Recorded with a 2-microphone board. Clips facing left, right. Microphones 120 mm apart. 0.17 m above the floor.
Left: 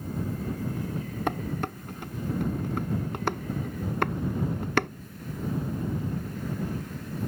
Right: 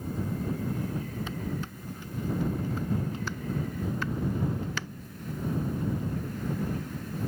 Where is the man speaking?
I don't hear a man speaking.